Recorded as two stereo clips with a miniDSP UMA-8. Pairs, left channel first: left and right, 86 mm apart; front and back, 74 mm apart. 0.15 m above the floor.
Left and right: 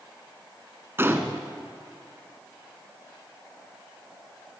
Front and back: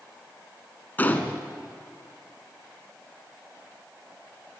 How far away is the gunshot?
About 1.6 m.